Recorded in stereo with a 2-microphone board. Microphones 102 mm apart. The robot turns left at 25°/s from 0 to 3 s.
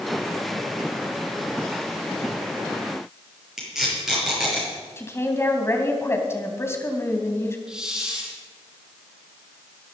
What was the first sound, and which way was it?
Tape being pulled, 5° right (ahead or behind).